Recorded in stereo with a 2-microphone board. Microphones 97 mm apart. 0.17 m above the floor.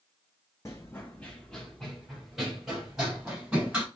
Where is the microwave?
No microwave in this recording.